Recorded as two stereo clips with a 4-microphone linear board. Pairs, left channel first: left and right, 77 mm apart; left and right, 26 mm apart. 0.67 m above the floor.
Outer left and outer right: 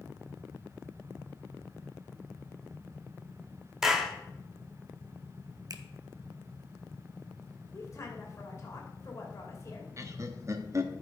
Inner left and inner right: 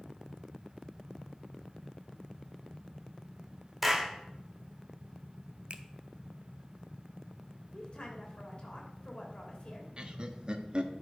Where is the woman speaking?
40° left (ahead or behind), 2.5 m.